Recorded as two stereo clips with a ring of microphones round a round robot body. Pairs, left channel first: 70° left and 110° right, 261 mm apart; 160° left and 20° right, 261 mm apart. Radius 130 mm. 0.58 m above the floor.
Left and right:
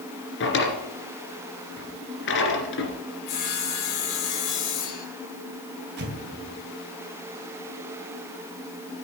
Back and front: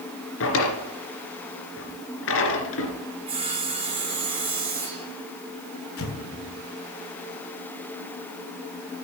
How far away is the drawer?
About 2.5 m.